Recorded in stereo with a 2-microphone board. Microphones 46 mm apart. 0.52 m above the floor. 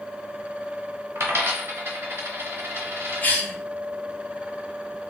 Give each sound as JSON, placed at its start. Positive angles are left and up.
{"t": 1.1, "sound": "a dropped coin", "side_deg": -65, "distance_m": 0.9}
{"t": 3.2, "sound": "a cough", "side_deg": 40, "distance_m": 1.2}